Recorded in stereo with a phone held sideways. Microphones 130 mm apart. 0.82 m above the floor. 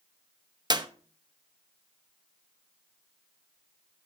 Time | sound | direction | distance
0.7 | a clap | 35° right (ahead or behind) | 0.7 m